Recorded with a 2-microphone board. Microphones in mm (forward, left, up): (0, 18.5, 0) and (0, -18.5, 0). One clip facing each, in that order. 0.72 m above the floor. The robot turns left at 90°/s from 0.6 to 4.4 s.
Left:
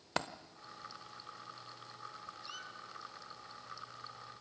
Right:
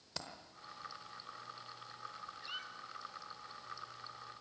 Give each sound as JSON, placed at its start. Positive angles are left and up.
{"t": 0.2, "sound": "a dropped coin", "side_deg": 55, "distance_m": 0.8}
{"t": 2.4, "sound": "a squeak", "side_deg": -20, "distance_m": 1.0}